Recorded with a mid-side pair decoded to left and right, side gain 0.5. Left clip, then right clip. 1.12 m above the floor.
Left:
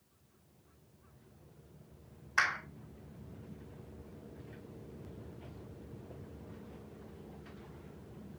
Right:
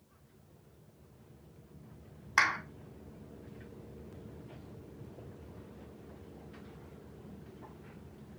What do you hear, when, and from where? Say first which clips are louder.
2.4 s a clap: right 3 dB; 45° right, 2.5 m